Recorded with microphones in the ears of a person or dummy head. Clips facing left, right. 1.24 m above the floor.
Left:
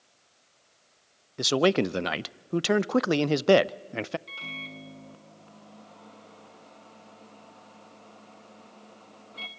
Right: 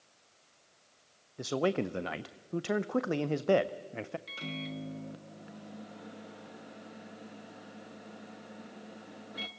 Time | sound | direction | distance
1.4 | a man speaking | 75° left (ahead or behind) | 0.5 m
4.3 | a microwave | 15° right (ahead or behind) | 0.9 m